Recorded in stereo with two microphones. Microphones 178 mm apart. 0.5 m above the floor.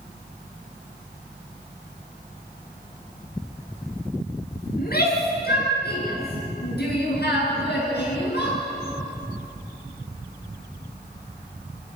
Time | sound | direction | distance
4.8 | a shout | 60° left (ahead or behind) | 8 m